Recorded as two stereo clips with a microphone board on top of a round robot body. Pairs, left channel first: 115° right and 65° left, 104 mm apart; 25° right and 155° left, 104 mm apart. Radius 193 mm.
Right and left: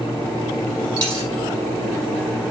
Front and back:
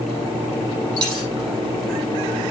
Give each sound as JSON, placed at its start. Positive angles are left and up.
{"t": 1.0, "sound": "a dropped coin", "azimuth_deg": 105, "distance_m": 7.0}